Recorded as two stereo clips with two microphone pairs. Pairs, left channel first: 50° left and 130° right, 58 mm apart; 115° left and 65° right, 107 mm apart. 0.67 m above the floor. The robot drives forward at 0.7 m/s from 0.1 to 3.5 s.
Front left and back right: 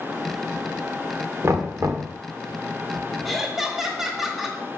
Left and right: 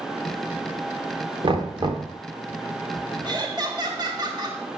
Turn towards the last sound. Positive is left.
turn(degrees=-45)